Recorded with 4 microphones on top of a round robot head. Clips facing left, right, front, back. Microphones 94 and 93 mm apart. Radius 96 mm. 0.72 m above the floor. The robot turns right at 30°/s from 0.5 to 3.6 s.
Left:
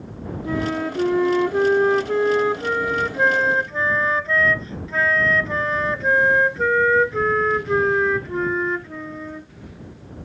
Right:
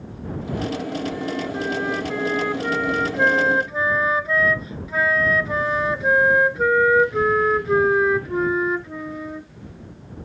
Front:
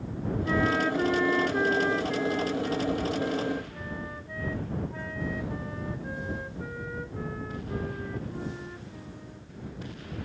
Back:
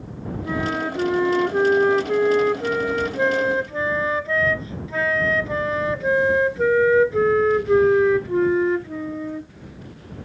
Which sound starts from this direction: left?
A flute, at 0.5 s.